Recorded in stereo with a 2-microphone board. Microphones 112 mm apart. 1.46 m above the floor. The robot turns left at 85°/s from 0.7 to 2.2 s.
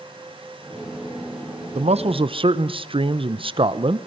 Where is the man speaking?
85° right, 0.8 m; by 4.0 s 120° right, 0.8 m.